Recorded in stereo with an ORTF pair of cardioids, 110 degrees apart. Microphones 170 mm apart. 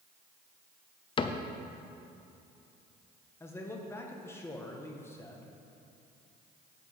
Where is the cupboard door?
30° left, 0.6 m.